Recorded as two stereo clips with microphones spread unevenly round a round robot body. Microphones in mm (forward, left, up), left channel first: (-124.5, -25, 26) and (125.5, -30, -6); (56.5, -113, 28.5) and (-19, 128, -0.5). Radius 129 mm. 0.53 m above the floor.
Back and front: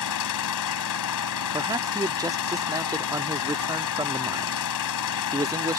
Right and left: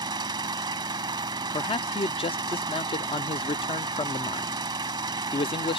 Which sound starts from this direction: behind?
An engine running, at 0.0 s.